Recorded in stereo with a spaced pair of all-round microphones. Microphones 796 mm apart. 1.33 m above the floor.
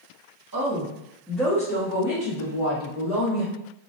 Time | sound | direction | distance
0.5 | a woman speaking | 25° right (ahead or behind) | 1.0 m